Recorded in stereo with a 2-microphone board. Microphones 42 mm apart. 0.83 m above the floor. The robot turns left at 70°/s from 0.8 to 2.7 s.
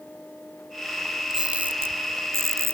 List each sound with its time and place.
1.3 s a camera shutter: 15° right (ahead or behind); by 2.7 s 70° right (ahead or behind)